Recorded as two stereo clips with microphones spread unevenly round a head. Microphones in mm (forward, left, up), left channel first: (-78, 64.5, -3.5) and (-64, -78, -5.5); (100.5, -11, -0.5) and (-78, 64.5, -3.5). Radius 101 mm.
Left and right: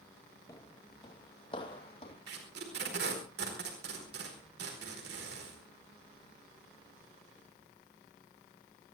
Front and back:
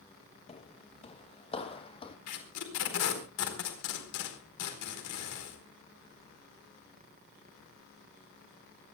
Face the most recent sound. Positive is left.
turn(degrees=-40)